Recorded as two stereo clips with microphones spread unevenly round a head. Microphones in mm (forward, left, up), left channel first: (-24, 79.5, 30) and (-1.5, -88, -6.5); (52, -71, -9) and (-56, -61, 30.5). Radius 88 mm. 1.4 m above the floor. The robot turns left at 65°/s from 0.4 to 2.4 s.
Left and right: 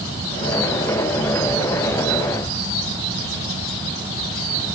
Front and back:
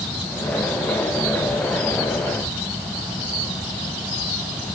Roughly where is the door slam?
No door slam in this recording.